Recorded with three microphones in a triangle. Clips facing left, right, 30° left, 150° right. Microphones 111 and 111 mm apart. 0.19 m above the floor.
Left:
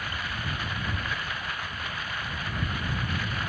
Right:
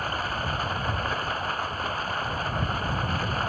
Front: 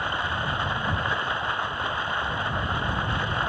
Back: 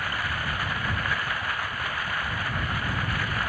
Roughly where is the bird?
No bird in this recording.